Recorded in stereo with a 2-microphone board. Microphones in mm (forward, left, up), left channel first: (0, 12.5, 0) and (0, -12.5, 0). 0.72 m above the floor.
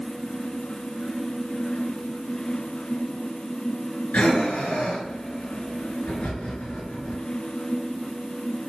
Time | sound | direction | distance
4.1 | breathing | 90° left | 4 m